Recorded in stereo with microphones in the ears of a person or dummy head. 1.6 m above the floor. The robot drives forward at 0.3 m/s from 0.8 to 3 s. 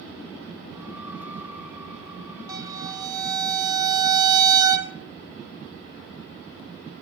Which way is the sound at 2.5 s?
25° right (ahead or behind).